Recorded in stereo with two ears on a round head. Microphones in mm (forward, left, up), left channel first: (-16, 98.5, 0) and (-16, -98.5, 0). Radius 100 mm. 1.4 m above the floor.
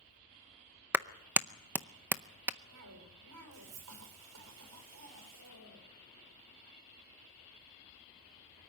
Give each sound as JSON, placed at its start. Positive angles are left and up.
{"t": 0.9, "sound": "a clap", "side_deg": -5, "distance_m": 0.5}
{"t": 2.7, "sound": "a cough", "side_deg": -80, "distance_m": 5.5}